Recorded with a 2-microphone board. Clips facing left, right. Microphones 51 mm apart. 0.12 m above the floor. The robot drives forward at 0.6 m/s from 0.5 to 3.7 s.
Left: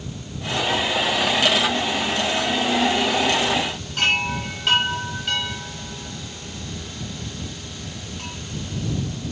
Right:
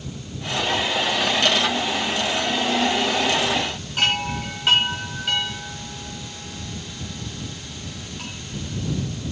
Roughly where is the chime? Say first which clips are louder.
Left 1 dB; centre.